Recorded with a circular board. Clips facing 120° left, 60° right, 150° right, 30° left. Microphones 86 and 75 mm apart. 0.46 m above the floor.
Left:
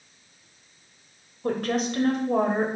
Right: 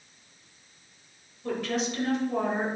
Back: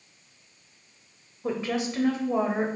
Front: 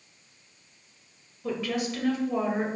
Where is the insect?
No insect in this recording.